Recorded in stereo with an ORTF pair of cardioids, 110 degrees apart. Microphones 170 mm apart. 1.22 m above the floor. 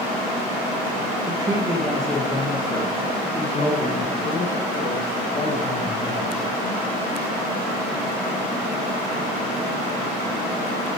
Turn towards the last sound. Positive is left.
turn(degrees=55)